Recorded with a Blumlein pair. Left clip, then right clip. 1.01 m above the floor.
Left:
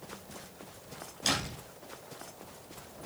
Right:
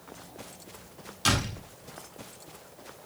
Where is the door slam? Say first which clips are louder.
Right 4 dB; 50° right, 7 m.